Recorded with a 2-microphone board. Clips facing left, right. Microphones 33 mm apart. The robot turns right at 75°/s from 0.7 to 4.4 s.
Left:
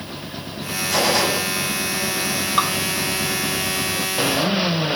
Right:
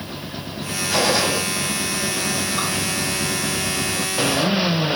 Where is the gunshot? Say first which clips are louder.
Even; 15° right, 5 m; by 1.4 s 20° left, 5 m.